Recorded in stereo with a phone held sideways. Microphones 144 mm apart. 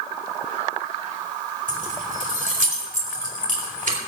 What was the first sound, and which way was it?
Keys jangling, 70° right (ahead or behind).